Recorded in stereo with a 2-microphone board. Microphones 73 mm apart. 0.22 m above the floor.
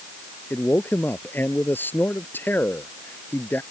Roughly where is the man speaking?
Left.